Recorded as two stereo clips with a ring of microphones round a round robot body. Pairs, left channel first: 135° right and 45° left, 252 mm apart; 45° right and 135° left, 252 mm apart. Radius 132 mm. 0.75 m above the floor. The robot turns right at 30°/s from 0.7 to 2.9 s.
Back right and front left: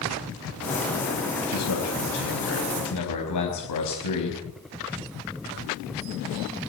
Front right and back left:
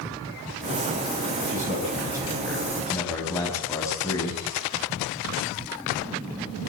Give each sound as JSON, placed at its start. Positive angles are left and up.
{"t": 1.5, "sound": "a man speaking", "azimuth_deg": -165, "distance_m": 5.0}